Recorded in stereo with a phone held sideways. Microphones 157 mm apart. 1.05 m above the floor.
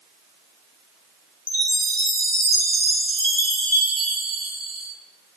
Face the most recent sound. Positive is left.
turn(degrees=70)  # may be behind; listen again after turning